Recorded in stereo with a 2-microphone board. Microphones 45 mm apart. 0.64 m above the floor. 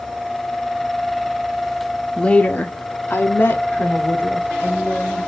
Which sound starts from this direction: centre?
A woman speaking, at 2.2 s.